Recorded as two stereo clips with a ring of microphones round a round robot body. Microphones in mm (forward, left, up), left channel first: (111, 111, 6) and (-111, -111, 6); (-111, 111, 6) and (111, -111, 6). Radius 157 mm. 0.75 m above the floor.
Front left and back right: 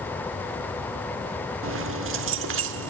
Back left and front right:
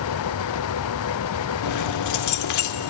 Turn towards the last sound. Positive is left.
turn(degrees=170)